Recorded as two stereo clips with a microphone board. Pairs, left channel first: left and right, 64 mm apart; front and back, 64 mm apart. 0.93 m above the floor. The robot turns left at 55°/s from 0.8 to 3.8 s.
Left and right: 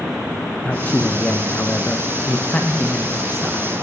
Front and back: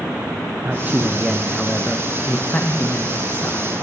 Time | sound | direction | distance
0.6 | a man speaking | 135° left | 0.8 m